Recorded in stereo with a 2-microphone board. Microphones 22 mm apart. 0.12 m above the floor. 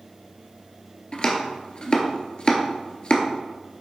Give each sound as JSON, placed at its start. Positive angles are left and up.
{"t": 1.1, "sound": "chopping", "side_deg": 50, "distance_m": 1.1}